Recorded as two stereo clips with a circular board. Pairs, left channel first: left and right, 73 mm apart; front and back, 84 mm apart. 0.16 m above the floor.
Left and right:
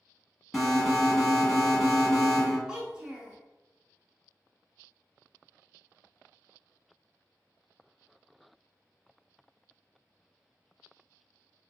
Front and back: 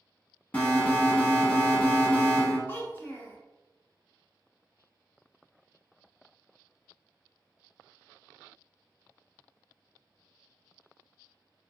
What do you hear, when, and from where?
0.5 s an alarm: 15° left, 0.9 m
2.7 s a child speaking: 25° right, 0.7 m